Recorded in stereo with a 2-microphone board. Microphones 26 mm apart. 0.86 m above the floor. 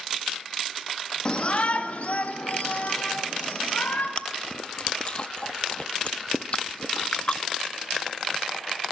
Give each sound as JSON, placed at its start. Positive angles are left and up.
{"t": 1.2, "sound": "a shout", "side_deg": 35, "distance_m": 1.1}
{"t": 4.2, "sound": "chewing", "side_deg": 40, "distance_m": 0.5}